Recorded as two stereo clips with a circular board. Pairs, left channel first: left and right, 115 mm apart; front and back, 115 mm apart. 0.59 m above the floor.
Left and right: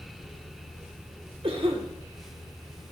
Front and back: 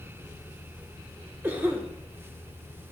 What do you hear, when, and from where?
1.4 s a cough: 110° right, 1.7 m